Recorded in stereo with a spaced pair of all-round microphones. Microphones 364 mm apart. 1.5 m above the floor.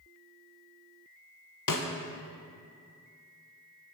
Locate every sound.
1.7 s a snare drum: 60° left (ahead or behind), 0.9 m